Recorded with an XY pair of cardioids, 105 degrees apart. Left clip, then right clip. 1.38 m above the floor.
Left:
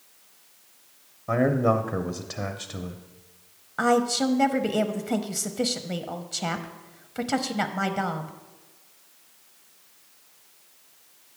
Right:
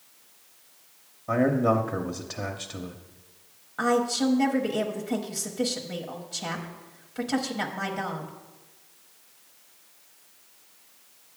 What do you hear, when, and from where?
1.3 s a man speaking: 10° left, 0.7 m
3.8 s a woman speaking: 40° left, 0.8 m